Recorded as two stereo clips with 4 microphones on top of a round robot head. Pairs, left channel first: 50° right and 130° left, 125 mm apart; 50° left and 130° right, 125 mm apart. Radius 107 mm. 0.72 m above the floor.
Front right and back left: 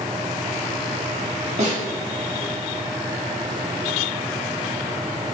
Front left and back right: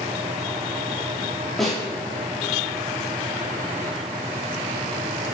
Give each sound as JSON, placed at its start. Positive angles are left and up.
{"t": 1.6, "sound": "a snare drum", "azimuth_deg": 135, "distance_m": 2.5}